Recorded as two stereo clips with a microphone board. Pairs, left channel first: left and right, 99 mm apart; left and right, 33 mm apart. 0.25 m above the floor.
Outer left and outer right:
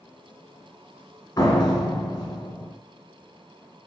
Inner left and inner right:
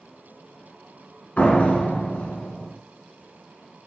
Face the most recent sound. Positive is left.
turn(degrees=50)  # may be behind; listen again after turning